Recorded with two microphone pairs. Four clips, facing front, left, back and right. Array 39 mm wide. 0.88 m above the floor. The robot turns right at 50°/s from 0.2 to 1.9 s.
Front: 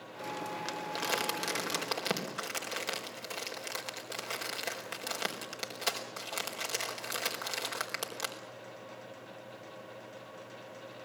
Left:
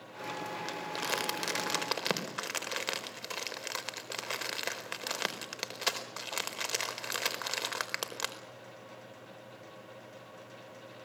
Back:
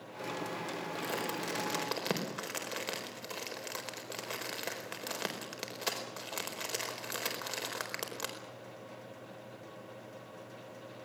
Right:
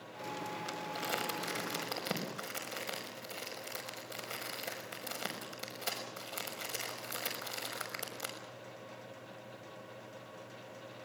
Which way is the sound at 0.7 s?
25° left.